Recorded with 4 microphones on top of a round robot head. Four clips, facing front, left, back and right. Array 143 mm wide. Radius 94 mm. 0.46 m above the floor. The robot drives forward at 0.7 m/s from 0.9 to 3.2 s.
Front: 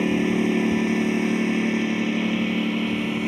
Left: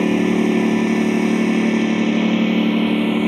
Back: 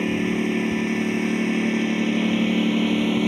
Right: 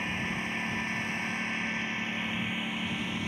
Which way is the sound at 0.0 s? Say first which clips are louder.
Left 19 dB, front 2 dB; 85° left.